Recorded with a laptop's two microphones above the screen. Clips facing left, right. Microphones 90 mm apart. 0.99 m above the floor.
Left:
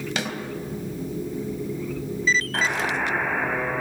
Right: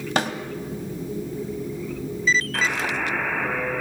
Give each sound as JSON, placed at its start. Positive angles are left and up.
{"t": 0.2, "sound": "a snare drum", "side_deg": -40, "distance_m": 1.4}
{"t": 2.5, "sound": "a buzzer", "side_deg": 30, "distance_m": 2.5}